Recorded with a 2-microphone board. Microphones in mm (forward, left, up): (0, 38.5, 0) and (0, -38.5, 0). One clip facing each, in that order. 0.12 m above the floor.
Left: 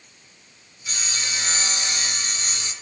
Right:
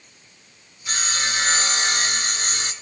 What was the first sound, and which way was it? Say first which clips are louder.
Sawing: right 6 dB; 50° right (ahead or behind).